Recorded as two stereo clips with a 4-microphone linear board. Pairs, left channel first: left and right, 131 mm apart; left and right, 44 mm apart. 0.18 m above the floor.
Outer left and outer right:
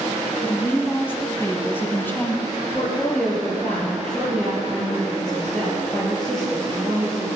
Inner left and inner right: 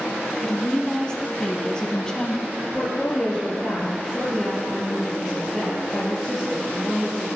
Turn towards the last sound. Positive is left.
turn(degrees=5)  # may be behind; listen again after turning